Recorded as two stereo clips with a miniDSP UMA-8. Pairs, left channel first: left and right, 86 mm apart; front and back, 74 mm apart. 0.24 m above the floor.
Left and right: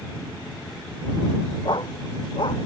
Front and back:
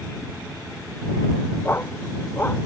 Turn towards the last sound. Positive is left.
turn(degrees=65)